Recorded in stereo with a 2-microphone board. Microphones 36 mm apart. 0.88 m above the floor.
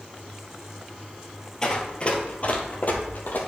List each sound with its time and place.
1.6 s running footsteps: 20° left (ahead or behind), 1.2 m; by 3.4 s 60° left (ahead or behind), 1.5 m